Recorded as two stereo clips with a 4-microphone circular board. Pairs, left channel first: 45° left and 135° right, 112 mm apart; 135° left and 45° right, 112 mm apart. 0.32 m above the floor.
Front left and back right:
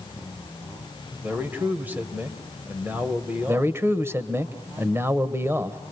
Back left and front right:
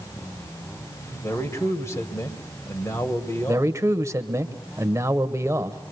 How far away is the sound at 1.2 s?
About 1.7 m.